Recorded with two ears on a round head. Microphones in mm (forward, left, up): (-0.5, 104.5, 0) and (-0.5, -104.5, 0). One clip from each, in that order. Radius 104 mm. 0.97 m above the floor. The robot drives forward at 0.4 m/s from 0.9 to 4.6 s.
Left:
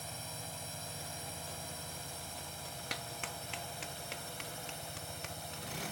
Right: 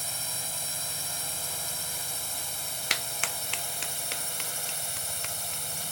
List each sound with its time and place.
0.0 s a drone: 55° right (ahead or behind); by 5.9 s 60° right (ahead or behind)
2.9 s a clap: 60° right (ahead or behind); by 5.8 s 30° right (ahead or behind)